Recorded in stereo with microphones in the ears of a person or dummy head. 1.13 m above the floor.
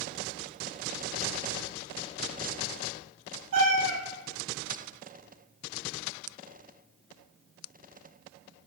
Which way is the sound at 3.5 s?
65° right (ahead or behind).